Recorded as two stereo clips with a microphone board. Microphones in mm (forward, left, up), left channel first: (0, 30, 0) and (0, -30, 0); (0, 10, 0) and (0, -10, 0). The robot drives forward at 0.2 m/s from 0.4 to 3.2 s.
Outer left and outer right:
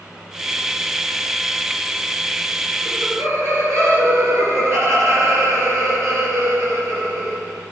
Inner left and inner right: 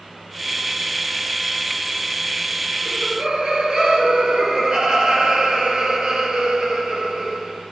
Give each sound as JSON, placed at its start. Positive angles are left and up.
{"t": 2.9, "sound": "laughter", "side_deg": -65, "distance_m": 3.5}